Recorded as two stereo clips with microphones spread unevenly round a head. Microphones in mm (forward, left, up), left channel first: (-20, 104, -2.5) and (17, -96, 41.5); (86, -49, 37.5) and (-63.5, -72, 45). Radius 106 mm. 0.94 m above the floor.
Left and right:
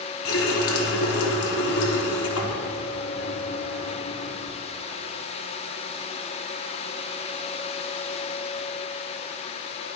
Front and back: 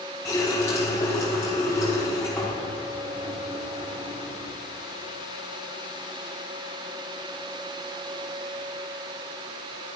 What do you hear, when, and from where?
0.2 s a running tap: 85° left, 1.4 m